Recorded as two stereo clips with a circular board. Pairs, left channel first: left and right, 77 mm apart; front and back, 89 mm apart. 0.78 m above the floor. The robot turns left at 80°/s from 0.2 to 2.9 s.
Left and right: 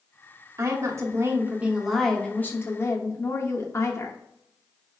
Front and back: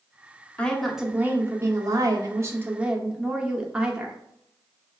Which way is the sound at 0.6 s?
70° right.